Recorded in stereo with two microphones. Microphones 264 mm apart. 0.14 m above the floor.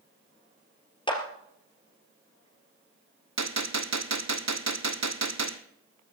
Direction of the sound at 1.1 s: 20° left (ahead or behind).